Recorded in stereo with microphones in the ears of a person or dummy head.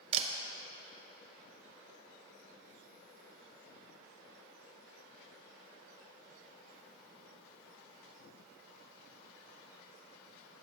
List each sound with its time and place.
0.1 s a camera shutter: 35° right (ahead or behind), 0.6 m